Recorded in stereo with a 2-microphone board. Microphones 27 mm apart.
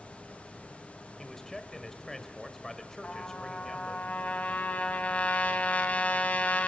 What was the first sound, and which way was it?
A man speaking, 15° left (ahead or behind).